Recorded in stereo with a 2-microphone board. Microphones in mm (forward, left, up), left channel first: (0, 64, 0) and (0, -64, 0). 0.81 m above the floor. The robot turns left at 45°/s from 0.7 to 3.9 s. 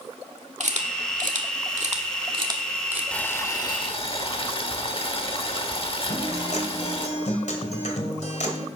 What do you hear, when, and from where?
0.6 s a camera shutter: 65° right (ahead or behind), 1.5 m; by 3.0 s 10° right (ahead or behind), 1.5 m
3.1 s boiling: 170° left, 1.3 m; by 7.1 s 135° left, 1.3 m
6.1 s a guitar: 65° left (ahead or behind), 2 m